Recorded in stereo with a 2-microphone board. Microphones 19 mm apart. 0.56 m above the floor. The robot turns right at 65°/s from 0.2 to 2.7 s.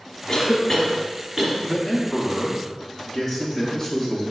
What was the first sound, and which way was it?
A cough, 35° left (ahead or behind).